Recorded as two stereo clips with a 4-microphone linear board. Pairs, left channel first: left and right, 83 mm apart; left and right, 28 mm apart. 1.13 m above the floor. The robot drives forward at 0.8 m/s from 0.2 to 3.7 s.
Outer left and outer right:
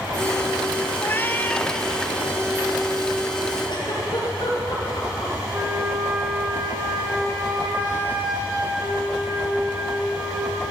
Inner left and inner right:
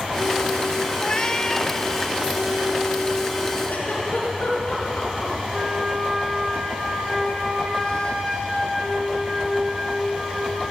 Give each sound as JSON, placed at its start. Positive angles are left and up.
{"t": 1.0, "sound": "a cat meowing", "side_deg": 25, "distance_m": 0.6}
{"t": 3.7, "sound": "a giggle", "side_deg": 70, "distance_m": 4.5}
{"t": 5.5, "sound": "a flute", "side_deg": -30, "distance_m": 3.0}